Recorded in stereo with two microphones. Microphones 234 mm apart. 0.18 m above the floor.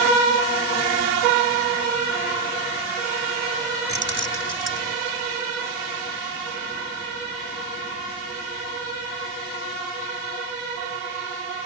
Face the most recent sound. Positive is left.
turn(degrees=-55)  # may be behind; listen again after turning